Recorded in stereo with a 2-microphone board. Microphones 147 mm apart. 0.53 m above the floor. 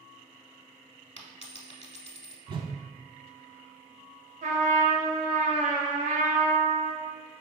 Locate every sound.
1.2 s a dropped coin: 40° left (ahead or behind), 0.8 m
2.5 s a whoosh: 35° right (ahead or behind), 0.5 m
4.4 s a trumpet: 65° right (ahead or behind), 1.2 m